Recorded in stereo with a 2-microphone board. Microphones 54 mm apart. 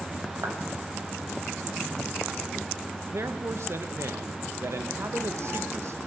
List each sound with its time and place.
0.4 s a clap: 70° right (ahead or behind), 5.5 m
3.1 s a man speaking: 60° right (ahead or behind), 1.4 m